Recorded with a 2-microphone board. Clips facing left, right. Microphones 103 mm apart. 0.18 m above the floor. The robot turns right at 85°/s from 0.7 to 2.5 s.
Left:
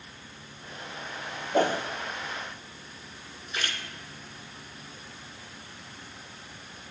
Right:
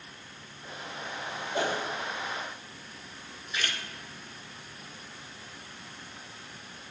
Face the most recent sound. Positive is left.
turn(degrees=35)  # may be behind; listen again after turning